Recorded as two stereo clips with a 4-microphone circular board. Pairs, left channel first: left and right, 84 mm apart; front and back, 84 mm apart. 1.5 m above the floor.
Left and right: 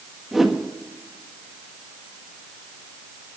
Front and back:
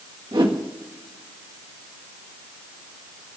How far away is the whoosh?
About 1.7 m.